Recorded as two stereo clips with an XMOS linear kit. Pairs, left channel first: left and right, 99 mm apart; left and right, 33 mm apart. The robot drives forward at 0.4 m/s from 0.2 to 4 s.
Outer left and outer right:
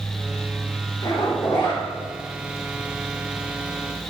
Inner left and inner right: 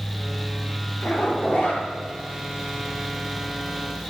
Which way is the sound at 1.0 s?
50° left (ahead or behind).